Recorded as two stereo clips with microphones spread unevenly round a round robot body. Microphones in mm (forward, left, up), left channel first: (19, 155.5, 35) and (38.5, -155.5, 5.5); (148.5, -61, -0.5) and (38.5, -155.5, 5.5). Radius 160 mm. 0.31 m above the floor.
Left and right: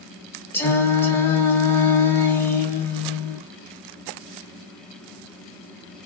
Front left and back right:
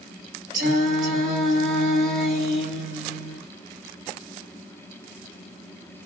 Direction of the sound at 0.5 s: Straight behind.